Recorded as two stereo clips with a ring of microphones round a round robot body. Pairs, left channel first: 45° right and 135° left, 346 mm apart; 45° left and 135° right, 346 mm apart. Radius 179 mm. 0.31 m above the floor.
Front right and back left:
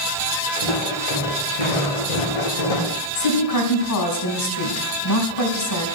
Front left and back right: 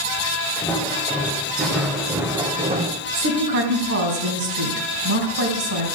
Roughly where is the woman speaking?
Right.